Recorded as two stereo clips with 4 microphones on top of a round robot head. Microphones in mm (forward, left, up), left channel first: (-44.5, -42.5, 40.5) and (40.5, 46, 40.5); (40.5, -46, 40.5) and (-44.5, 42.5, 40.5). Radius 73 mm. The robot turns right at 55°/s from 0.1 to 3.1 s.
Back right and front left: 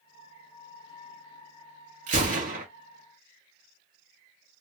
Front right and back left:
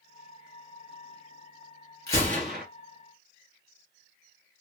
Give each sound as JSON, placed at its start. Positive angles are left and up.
{"t": 2.1, "sound": "a gunshot", "azimuth_deg": 20, "distance_m": 2.5}